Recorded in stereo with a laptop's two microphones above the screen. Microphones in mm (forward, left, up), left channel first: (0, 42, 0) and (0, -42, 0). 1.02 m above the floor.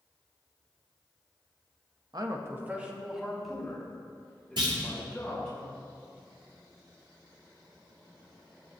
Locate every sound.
2.1 s a man speaking: 50° right (ahead or behind), 1.0 m; by 5.6 s 15° left (ahead or behind), 5 m
4.6 s a clunk: 70° right (ahead or behind), 4 m